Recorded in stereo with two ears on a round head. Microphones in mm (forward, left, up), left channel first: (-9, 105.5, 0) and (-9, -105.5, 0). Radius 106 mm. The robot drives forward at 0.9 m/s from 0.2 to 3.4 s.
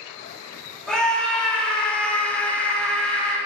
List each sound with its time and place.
0.9 s a scream: 5° left (ahead or behind), 1.6 m